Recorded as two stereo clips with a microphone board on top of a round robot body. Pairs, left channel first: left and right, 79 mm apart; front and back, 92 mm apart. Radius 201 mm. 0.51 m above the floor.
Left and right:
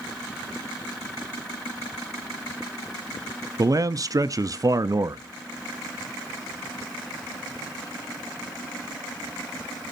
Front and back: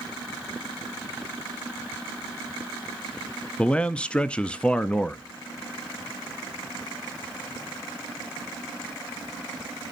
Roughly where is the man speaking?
Right.